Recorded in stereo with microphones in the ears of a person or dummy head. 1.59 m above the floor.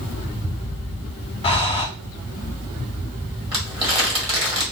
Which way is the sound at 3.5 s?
20° right (ahead or behind).